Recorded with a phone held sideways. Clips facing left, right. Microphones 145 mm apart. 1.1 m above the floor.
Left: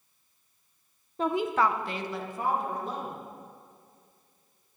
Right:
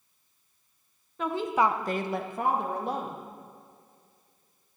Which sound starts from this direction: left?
A woman speaking, at 1.2 s.